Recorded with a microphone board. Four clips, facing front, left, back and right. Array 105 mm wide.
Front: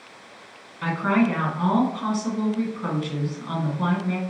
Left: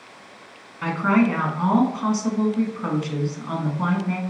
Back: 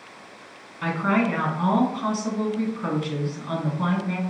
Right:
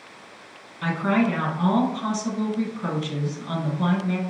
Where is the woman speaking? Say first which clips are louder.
Left 2 dB, front 1 dB; 100° left, 1.2 m.